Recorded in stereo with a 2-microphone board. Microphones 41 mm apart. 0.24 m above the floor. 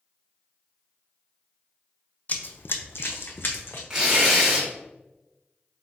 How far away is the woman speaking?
No woman speaking in this recording.